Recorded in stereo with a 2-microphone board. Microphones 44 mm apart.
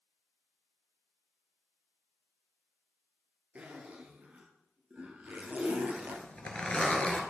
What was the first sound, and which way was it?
A zipper, 35° right (ahead or behind).